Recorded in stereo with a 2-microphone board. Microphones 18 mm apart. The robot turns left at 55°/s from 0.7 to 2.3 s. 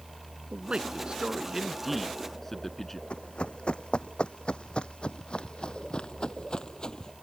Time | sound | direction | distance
0.5 | a man speaking | 110° right | ?
3.1 | running footsteps | 70° left (ahead or behind) | ?